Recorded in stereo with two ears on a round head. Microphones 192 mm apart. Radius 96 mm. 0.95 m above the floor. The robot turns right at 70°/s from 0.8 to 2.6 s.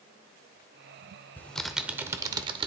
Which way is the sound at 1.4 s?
10° left (ahead or behind).